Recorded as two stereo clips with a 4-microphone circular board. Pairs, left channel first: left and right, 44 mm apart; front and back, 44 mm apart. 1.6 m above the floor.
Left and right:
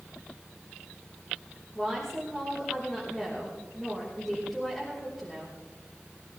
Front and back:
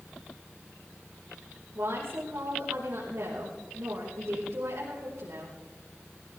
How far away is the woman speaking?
About 5 m.